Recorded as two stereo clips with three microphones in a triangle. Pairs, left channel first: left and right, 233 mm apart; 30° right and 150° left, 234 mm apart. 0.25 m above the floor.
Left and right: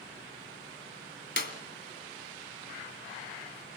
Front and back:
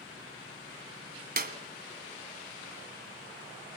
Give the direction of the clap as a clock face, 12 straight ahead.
8 o'clock.